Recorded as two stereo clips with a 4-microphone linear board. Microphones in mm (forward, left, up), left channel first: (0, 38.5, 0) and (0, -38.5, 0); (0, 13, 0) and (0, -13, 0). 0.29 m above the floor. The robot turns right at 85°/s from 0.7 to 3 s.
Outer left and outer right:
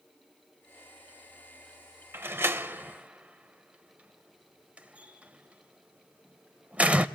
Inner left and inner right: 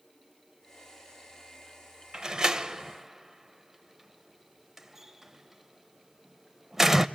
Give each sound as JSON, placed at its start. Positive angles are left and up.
{"t": 2.1, "sound": "a door slam", "side_deg": -25, "distance_m": 0.6}